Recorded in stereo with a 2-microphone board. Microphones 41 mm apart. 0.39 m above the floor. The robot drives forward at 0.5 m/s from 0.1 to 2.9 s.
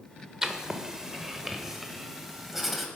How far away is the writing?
About 0.9 m.